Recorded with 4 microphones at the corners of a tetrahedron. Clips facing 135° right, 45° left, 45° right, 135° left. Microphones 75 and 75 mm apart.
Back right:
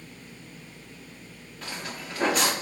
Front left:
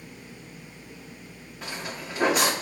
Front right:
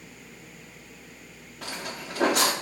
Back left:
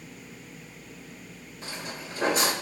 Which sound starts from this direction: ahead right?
Footsteps, at 1.6 s.